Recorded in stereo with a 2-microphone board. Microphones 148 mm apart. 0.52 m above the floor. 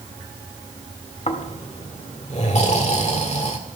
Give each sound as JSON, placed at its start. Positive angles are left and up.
{"t": 1.3, "sound": "snoring", "side_deg": 50, "distance_m": 1.7}